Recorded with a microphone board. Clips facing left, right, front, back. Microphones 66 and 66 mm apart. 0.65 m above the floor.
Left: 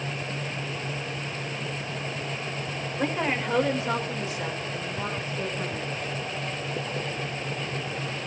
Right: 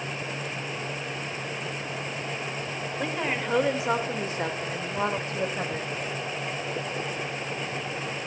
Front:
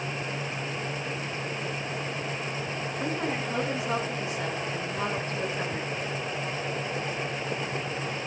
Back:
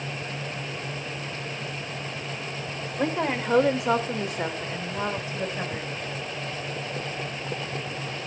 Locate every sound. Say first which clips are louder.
3.0 s a woman speaking: left 3 dB, back 6 dB; 170° left, 3 m; by 5.9 s 95° right, 3.5 m